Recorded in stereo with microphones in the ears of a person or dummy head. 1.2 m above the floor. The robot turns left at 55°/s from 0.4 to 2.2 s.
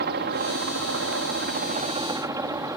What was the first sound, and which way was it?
A helicopter, 65° right.